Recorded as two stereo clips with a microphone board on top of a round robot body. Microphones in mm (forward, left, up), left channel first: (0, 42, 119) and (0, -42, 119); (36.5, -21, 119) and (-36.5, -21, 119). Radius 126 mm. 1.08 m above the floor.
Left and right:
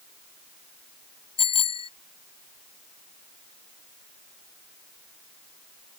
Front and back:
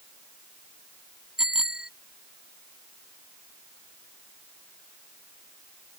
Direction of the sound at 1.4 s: 95° left.